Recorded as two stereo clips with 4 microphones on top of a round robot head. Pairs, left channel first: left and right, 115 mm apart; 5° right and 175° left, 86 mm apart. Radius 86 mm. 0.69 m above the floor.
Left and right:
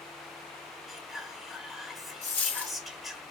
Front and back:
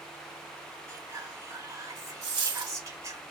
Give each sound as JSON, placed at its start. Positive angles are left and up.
{"t": 0.9, "sound": "whispering", "azimuth_deg": 180, "distance_m": 1.3}
{"t": 2.2, "sound": "a dropped coin", "azimuth_deg": 165, "distance_m": 0.7}